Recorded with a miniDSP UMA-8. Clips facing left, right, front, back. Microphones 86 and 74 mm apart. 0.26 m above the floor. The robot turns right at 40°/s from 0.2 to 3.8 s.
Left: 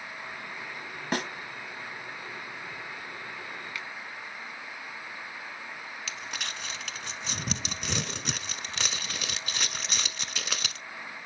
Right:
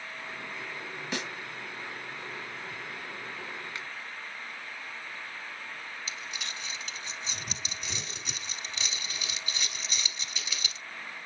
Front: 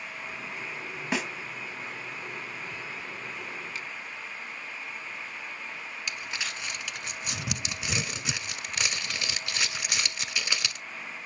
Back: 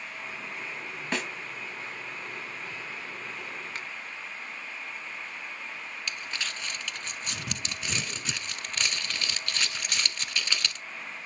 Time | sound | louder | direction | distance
1.1 | a snare drum | left 6 dB, front 2 dB | 80° left | 1.2 m
3.8 | a finger snap | left 1 dB, even | 150° right | 1.7 m
6.1 | crumpling | left 2 dB, front 1 dB | 75° left | 1.0 m